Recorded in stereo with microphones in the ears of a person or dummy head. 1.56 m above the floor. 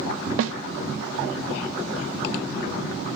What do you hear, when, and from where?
0.4 s a snare drum: 80° right, 0.5 m